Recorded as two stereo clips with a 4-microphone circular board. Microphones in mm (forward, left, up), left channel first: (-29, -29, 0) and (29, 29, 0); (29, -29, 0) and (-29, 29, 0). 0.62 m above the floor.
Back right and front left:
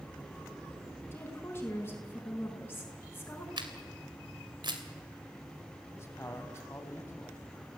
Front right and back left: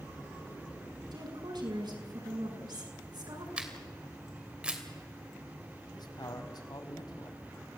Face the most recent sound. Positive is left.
turn(degrees=-80)